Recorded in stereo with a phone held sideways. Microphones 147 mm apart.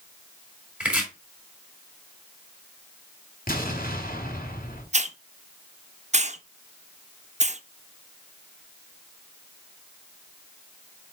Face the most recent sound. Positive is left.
turn(degrees=-50)  # may be behind; listen again after turning